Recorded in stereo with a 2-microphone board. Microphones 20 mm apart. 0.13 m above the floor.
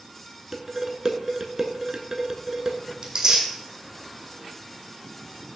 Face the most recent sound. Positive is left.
turn(degrees=-40)  # may be behind; listen again after turning